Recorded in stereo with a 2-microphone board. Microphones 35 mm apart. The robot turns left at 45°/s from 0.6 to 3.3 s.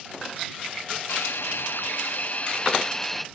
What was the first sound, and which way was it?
A hiss, 100° left.